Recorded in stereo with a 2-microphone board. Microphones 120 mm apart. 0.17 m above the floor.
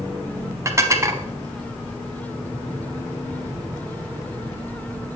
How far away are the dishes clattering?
About 0.9 m.